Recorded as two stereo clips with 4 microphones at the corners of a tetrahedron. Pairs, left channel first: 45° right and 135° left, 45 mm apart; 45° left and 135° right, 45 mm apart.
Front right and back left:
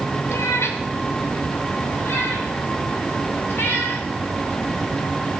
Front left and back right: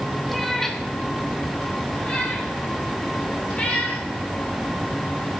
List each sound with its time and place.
0.3 s a cat meowing: 45° right, 1.5 m; by 5.4 s 15° right, 9 m